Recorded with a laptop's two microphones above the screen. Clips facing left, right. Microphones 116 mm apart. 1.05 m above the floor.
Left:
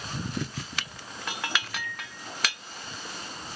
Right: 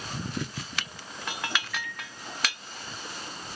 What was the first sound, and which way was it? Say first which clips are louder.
A microwave: even; 35° left (ahead or behind).